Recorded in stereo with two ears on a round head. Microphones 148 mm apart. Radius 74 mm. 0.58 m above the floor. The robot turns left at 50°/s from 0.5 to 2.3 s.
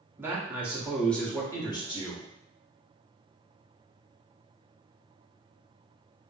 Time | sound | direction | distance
0.2 | a man speaking | 160° right | 0.9 m